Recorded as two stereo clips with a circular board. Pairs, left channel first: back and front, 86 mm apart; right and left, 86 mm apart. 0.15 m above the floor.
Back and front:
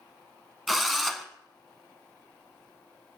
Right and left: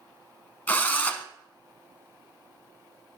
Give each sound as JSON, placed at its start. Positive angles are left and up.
{"t": 0.7, "sound": "a drill", "azimuth_deg": -90, "distance_m": 0.6}